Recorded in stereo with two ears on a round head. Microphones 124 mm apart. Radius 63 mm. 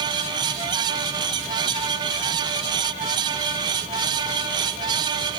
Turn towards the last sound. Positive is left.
No sound to turn to.